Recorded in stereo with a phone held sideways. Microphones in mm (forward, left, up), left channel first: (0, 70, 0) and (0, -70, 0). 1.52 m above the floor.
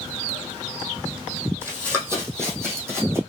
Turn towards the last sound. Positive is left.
turn(degrees=-20)  # may be behind; listen again after turning